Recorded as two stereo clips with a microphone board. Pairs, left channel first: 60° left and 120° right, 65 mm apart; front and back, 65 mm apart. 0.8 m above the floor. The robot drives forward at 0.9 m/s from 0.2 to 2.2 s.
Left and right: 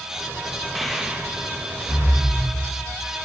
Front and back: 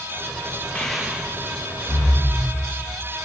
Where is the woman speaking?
No woman speaking in this recording.